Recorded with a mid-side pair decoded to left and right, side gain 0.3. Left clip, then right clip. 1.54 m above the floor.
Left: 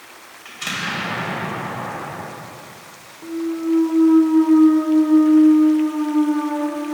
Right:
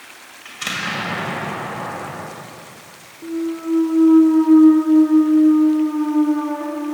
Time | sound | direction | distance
0.5 | an explosion | 55° right | 2.0 m
3.2 | a clunk | 15° right | 0.9 m